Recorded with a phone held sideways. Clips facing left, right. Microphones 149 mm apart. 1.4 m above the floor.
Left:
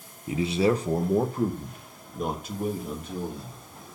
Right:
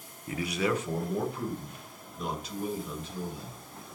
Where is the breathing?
No breathing in this recording.